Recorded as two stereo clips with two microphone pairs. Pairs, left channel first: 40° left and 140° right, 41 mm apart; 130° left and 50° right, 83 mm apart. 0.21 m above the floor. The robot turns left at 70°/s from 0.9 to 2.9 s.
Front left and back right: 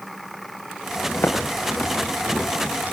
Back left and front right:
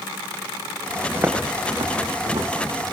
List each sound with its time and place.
1.1 s footsteps: 25° left, 9 m; by 2.9 s 90° right, 8.5 m